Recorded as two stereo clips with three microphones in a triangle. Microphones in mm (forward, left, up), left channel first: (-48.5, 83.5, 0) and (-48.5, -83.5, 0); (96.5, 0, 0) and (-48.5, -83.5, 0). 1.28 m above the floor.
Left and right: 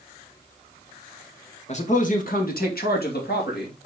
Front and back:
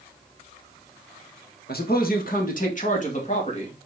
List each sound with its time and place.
1.7 s a man speaking: 45° left, 1.6 m; by 3.7 s 75° left, 3 m